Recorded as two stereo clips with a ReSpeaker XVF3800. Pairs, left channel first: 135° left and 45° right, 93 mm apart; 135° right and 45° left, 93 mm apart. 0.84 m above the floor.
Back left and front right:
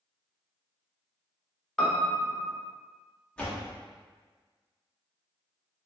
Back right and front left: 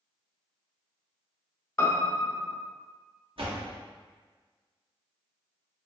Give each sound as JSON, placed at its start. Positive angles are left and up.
{"t": 1.8, "sound": "a piano", "azimuth_deg": -150, "distance_m": 0.7}
{"t": 3.4, "sound": "a door slam", "azimuth_deg": 55, "distance_m": 0.9}